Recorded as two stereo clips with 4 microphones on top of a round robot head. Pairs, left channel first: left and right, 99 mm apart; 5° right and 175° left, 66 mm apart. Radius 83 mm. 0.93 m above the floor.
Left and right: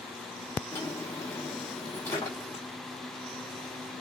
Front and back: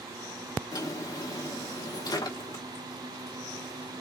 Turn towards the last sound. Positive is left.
turn(degrees=20)